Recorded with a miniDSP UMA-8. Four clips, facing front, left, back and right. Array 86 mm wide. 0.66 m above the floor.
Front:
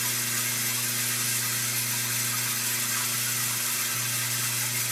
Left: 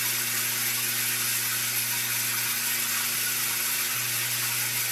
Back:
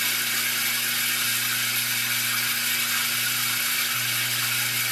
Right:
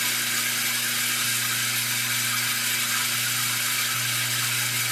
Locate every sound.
0.0 s running water: 135° right, 1.2 m